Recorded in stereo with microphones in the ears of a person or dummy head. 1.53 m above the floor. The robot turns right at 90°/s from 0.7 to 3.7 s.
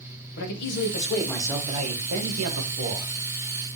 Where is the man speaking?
115° left, 1.0 m; by 3.1 s 30° right, 1.0 m.